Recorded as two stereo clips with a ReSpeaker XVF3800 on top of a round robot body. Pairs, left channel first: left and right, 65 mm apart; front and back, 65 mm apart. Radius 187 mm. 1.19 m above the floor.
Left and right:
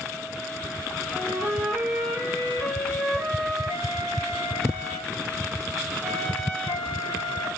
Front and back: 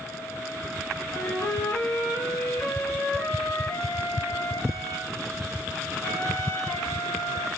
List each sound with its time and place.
1.1 s a flute: 40° right, 3.5 m